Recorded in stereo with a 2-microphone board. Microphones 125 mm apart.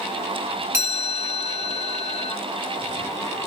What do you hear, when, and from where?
0.7 s a chime: 20° right (ahead or behind), 1.7 m